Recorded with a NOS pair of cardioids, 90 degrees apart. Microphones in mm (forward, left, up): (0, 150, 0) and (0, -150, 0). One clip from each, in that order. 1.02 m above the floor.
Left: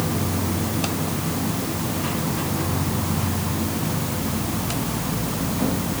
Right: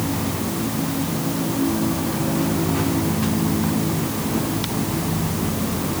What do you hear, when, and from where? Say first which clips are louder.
0.0 s an insect: right 1 dB; 15° left, 5.5 m